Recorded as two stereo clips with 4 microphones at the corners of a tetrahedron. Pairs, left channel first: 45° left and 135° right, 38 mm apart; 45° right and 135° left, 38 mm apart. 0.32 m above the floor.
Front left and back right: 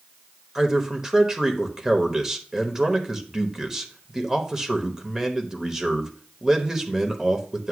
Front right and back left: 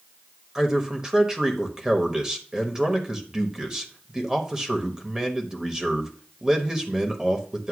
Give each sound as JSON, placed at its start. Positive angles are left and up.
{"t": 0.6, "sound": "a man speaking", "azimuth_deg": 170, "distance_m": 1.1}